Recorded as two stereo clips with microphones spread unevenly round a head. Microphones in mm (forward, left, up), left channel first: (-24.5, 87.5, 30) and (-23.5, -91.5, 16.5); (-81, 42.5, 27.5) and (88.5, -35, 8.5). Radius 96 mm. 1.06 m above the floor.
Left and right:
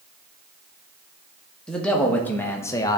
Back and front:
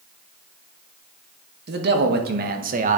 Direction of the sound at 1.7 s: 5° left.